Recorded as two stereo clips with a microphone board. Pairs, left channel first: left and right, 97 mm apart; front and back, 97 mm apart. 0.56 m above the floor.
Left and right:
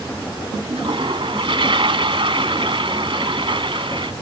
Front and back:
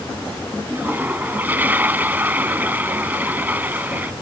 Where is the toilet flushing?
110° right.